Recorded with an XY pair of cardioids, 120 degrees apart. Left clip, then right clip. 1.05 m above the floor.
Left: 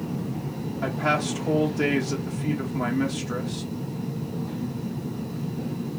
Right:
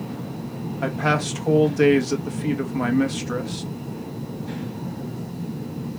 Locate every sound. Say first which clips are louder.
0.8 s a man speaking: right 2 dB; 30° right, 1.4 m